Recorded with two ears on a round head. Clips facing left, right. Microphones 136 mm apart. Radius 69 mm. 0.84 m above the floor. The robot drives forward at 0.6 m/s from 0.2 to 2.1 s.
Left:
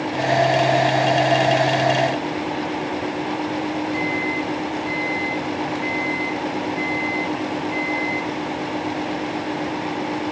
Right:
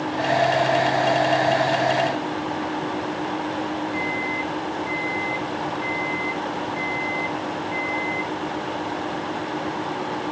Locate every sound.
3.9 s a microwave: 60° left (ahead or behind), 6 m